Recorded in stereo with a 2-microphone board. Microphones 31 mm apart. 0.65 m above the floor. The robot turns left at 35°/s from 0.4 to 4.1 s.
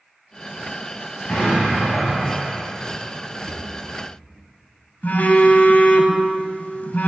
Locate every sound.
1.3 s an explosion: 55° left, 2.5 m; by 2.6 s 10° left, 2.5 m
3.5 s a drawer: 50° right (ahead or behind), 2 m; by 3.6 s 60° right (ahead or behind), 2 m
5.0 s a phone buzzing: 70° left (ahead or behind), 0.9 m